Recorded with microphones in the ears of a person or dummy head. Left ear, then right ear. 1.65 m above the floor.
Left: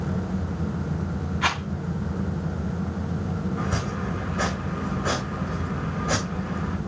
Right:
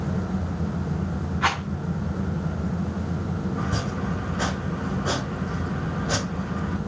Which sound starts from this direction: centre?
A rattle, at 1.4 s.